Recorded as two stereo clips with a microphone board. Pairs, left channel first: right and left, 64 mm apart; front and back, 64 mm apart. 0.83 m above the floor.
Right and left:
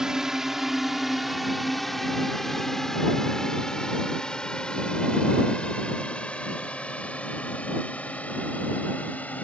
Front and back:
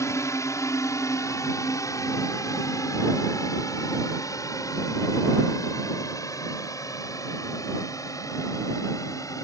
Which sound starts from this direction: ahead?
A drone, at 0.0 s.